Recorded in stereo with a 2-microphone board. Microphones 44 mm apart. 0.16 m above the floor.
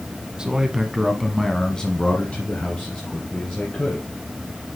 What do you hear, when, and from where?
0.4 s a man speaking: 15° right (ahead or behind), 1.2 m; by 4.0 s 35° left (ahead or behind), 2.5 m